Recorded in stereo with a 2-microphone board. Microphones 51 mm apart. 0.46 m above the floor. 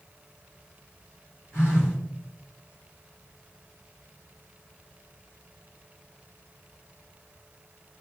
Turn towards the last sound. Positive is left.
turn(degrees=45)  # may be behind; listen again after turning